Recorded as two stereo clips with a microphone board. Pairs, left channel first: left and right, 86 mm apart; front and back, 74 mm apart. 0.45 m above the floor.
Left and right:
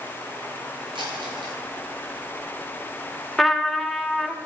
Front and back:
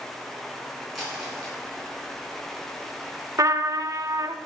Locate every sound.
0.9 s crumpling: 90° right, 3 m
3.4 s a trumpet: 175° left, 0.6 m